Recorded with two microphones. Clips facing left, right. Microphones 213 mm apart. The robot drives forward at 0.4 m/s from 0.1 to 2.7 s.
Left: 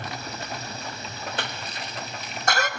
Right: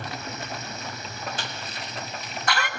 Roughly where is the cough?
Left.